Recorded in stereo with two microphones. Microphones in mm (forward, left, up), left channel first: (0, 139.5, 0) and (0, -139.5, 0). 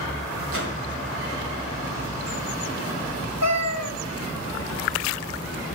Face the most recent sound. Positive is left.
turn(degrees=-65)  # may be behind; listen again after turning